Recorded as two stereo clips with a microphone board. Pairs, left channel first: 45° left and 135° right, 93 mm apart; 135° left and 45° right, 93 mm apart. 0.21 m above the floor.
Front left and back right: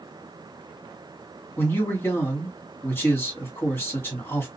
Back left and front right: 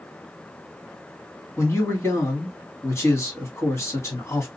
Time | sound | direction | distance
1.6 | a man speaking | 95° left | 1.7 m